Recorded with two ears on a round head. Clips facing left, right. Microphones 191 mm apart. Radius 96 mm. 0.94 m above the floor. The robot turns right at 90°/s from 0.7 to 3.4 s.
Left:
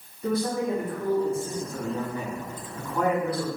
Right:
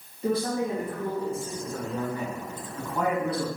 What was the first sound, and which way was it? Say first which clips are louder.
A man speaking: even; 25° right.